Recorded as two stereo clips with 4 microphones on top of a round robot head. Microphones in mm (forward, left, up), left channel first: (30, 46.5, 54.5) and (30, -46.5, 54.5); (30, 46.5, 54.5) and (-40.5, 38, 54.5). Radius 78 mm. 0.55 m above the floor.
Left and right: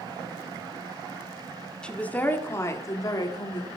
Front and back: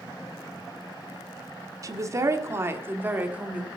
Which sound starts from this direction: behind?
A woman speaking, at 1.8 s.